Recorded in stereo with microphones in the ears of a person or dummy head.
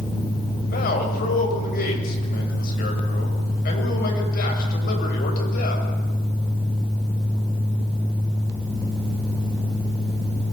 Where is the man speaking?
55° left (ahead or behind), 7.5 m.